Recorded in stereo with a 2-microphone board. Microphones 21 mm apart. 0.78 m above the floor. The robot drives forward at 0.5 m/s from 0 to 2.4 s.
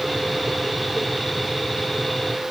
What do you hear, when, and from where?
Only background noise.